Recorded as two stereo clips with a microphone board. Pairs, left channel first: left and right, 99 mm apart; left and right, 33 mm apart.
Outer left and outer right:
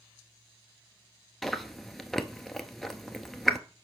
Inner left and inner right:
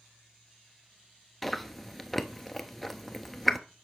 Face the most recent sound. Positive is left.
turn(degrees=0)  # may be behind; listen again after turning